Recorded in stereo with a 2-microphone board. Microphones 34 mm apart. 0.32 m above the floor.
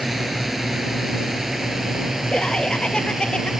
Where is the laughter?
25° left (ahead or behind).